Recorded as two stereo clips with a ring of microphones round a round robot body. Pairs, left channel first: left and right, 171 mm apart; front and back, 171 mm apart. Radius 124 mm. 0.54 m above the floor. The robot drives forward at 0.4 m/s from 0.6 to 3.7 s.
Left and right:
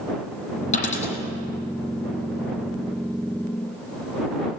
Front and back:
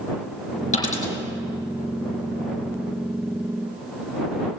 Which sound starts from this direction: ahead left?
A dropped coin, at 0.7 s.